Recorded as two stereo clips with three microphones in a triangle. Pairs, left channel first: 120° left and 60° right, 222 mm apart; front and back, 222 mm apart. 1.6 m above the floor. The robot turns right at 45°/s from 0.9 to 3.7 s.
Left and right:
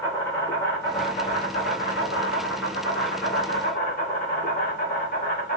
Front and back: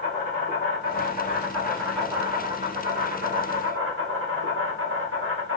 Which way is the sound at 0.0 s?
40° left.